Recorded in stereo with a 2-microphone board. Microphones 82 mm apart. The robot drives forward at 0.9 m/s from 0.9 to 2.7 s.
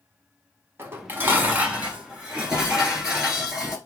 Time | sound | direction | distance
0.8 | dishes clattering | 30° right (ahead or behind) | 0.7 m